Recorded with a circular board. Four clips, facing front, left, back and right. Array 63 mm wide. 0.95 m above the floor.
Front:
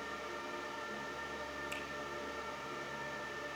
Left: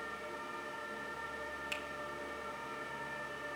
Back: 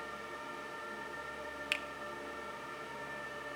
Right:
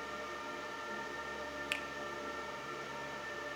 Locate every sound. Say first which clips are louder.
1.7 s a finger snap: right 5 dB, back 4 dB; 155° right, 0.6 m